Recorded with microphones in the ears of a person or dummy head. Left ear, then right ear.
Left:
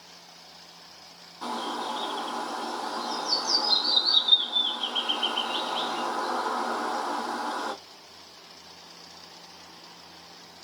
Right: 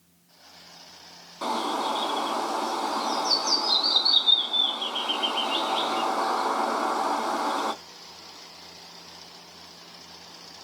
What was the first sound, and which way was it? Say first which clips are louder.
A bird: right 5 dB; 25° right (ahead or behind).